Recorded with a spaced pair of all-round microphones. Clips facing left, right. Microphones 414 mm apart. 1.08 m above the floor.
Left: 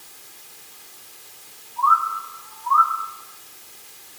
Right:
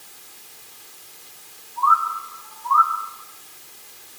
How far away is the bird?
About 2 m.